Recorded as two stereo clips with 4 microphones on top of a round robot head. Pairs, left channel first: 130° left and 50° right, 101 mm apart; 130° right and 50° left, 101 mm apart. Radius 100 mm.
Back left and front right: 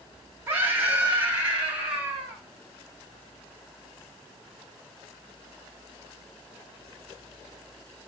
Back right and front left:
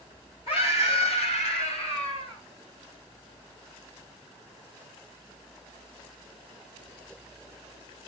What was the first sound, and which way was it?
A scream, 120° right.